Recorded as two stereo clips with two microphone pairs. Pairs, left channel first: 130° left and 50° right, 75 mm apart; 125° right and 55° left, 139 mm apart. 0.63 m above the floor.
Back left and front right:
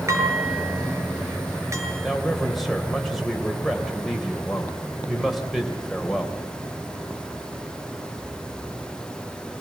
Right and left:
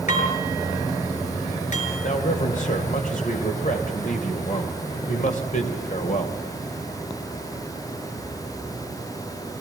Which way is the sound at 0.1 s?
100° right.